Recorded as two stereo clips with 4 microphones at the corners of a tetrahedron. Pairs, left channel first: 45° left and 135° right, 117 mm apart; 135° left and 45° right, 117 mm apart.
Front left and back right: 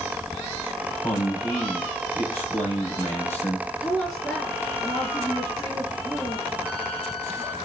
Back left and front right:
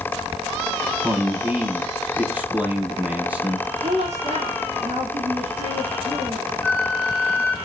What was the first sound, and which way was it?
A man speaking, 5° left.